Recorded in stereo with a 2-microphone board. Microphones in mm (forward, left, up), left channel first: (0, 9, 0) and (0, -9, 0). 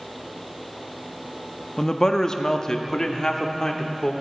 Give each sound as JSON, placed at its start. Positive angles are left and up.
{"t": 1.8, "sound": "a man speaking", "side_deg": 30, "distance_m": 0.6}